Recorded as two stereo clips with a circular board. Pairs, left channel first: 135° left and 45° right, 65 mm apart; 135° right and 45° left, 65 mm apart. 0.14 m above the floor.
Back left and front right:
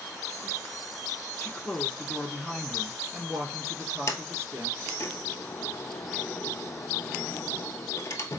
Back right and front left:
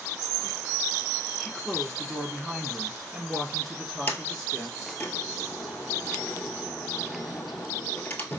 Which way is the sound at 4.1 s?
170° left.